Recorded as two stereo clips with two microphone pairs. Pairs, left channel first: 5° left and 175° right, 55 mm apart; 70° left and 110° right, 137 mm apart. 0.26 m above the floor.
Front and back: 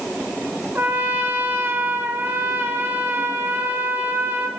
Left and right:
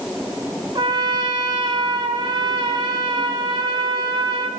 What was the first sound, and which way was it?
A trumpet, 150° right.